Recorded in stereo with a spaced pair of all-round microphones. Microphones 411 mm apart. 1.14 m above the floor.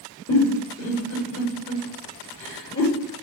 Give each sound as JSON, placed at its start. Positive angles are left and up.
{"t": 0.3, "sound": "a giggle", "side_deg": 40, "distance_m": 4.0}